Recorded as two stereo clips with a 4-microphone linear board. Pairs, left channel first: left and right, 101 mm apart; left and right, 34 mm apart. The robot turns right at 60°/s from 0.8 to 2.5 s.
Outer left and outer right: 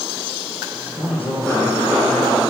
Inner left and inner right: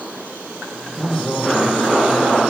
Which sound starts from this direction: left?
A man speaking, at 0.9 s.